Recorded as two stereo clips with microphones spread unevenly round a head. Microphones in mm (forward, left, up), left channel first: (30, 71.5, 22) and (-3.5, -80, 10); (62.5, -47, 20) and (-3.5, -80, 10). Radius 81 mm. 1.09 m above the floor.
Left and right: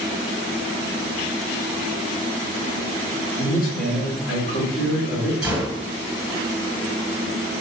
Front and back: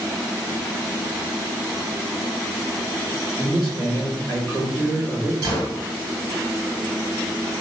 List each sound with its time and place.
3.4 s a man speaking: 120° left, 1.8 m
5.4 s a gunshot: 170° left, 1.3 m